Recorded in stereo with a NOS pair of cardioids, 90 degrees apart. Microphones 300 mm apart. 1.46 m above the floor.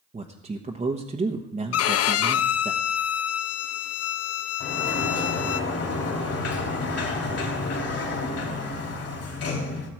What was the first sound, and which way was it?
A man speaking, 25° right.